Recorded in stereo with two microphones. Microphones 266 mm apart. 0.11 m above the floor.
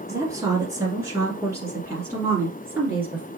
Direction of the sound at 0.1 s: 10° right (ahead or behind).